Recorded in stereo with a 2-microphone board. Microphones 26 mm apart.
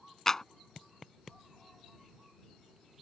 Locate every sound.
0.3 s a clap: 20° left (ahead or behind)